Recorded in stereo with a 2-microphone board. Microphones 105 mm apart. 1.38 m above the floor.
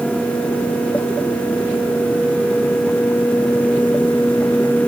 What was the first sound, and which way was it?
Only background noise.